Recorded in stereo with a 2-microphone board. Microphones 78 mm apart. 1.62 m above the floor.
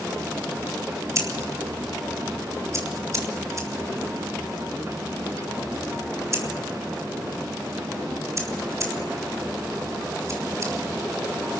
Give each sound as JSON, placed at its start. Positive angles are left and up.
{"t": 1.1, "sound": "scissors", "side_deg": -40, "distance_m": 3.5}